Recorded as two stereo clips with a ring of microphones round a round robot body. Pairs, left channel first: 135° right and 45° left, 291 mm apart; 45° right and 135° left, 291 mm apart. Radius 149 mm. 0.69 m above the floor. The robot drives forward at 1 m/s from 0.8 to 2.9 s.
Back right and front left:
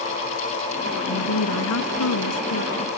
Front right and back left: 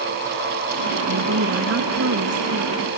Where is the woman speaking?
175° right.